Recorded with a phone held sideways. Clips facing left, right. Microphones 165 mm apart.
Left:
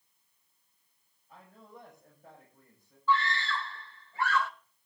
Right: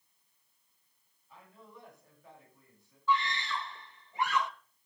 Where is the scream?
20° right (ahead or behind), 1.1 m.